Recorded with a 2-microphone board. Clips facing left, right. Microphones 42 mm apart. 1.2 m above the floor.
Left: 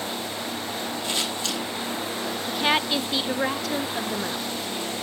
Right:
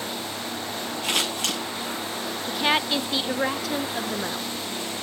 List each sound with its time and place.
1.0 s scissors: 70° right (ahead or behind), 7.5 m
2.5 s a woman speaking: centre (ahead or behind), 0.6 m